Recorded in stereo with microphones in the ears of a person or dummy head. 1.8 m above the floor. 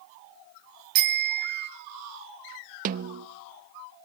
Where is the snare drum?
45° right (ahead or behind), 0.7 m.